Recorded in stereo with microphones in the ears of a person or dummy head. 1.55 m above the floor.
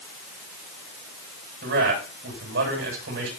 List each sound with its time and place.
1.6 s a man speaking: 75° right (ahead or behind), 8.5 m